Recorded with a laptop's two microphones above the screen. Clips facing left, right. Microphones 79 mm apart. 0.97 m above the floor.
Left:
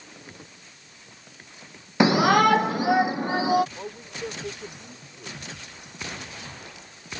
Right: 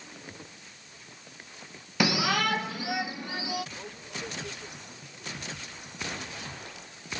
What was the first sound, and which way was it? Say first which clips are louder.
A shout: left 9 dB; 25° left (ahead or behind).